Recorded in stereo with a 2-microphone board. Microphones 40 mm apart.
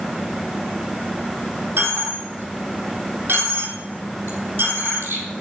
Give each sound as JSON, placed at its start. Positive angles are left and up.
{"t": 1.8, "sound": "a dropped coin", "side_deg": -70, "distance_m": 4.0}